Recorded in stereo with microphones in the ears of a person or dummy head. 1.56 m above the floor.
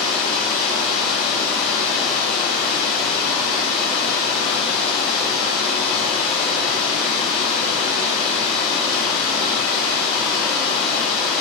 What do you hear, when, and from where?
0.0 s running water: 5° left (ahead or behind), 1.4 m